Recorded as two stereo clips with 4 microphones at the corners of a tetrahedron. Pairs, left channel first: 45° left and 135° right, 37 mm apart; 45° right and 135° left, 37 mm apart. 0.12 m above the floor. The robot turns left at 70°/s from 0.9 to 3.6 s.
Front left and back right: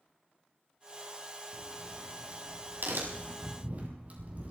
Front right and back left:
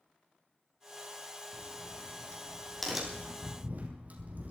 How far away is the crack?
About 4.5 m.